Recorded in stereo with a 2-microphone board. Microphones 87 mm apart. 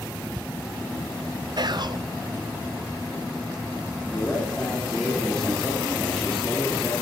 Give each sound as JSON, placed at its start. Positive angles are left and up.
{"t": 1.6, "sound": "whispering", "side_deg": -55, "distance_m": 0.5}
{"t": 4.1, "sound": "a man speaking", "side_deg": 15, "distance_m": 3.0}